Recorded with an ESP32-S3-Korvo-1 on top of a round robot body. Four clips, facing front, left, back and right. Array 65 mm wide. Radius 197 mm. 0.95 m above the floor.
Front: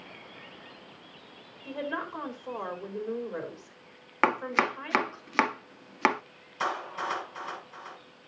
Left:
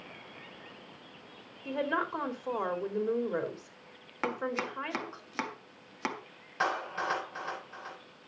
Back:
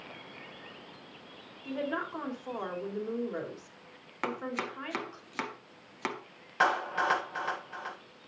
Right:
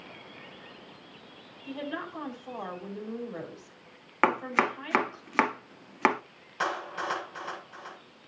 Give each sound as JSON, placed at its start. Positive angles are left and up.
{"t": 1.6, "sound": "a woman speaking", "azimuth_deg": 95, "distance_m": 4.0}
{"t": 4.2, "sound": "chopping", "azimuth_deg": -55, "distance_m": 0.8}
{"t": 6.6, "sound": "a clap", "azimuth_deg": 170, "distance_m": 5.5}